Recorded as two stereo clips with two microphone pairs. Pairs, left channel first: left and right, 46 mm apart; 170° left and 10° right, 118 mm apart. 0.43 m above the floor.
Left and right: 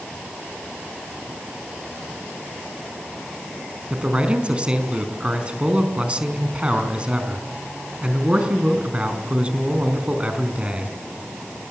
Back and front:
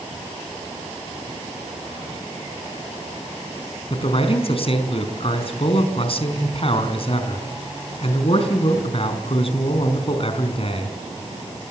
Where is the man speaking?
155° right, 4 m.